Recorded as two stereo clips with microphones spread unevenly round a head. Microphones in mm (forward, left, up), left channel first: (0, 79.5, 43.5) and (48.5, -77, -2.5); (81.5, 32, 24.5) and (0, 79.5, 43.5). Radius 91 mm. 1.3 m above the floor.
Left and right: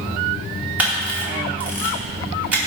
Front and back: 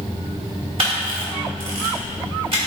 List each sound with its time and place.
0.8 s a camera shutter: 155° right, 2.0 m